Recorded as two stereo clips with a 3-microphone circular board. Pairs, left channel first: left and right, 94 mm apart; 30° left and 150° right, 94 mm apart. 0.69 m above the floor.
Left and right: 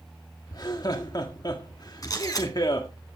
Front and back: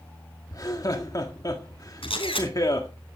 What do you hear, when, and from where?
0.5 s laughter: 65° left, 1.6 m
2.0 s a camera shutter: 40° left, 4.5 m